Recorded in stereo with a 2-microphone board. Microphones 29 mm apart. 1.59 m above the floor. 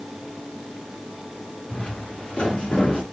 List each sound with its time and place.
1.7 s footsteps: 55° left (ahead or behind), 4.5 m; by 3.0 s 40° left (ahead or behind), 4 m